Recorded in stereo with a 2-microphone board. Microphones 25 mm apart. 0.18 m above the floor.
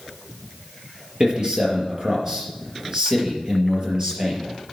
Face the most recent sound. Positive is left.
turn(degrees=-25)  # may be behind; listen again after turning